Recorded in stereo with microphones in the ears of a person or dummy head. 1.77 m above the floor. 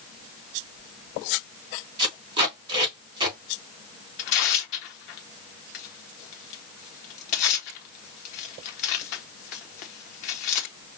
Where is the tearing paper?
35° left (ahead or behind), 0.8 m.